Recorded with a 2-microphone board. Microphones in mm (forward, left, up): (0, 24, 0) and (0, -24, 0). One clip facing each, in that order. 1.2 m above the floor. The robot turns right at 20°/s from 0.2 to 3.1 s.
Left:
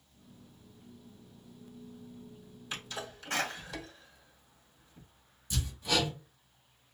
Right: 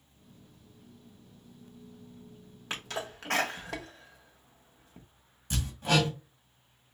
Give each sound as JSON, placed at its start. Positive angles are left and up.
{"t": 2.7, "sound": "a sneeze", "side_deg": -85, "distance_m": 1.2}
{"t": 5.5, "sound": "hammering", "side_deg": -60, "distance_m": 1.6}